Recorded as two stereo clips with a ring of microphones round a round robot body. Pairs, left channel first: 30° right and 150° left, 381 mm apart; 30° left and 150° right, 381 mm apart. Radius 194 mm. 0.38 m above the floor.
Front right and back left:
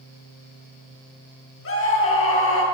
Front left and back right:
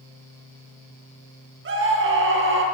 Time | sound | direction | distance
1.6 | a scream | 90° right | 7 m